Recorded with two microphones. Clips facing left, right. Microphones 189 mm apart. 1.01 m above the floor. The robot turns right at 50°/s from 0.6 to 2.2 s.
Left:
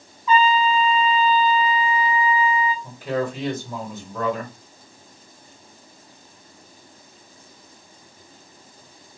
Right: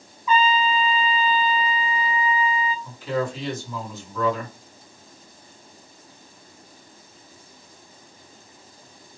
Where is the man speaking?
60° left (ahead or behind), 1.5 m.